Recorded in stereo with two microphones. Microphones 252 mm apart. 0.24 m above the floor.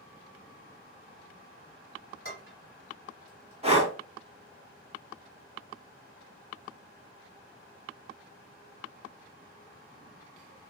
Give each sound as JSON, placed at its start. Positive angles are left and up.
{"t": 2.2, "sound": "dishes clattering", "side_deg": -45, "distance_m": 1.6}
{"t": 3.6, "sound": "breathing", "side_deg": -25, "distance_m": 0.6}